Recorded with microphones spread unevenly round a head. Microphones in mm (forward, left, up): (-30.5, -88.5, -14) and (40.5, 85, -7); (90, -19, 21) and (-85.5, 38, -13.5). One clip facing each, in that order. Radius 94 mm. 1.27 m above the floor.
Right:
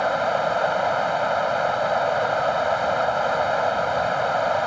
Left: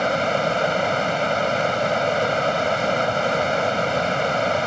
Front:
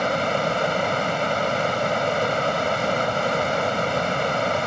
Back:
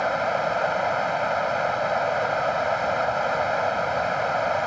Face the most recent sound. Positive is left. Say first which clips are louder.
# left 1 dB, front 1 dB
turn(degrees=20)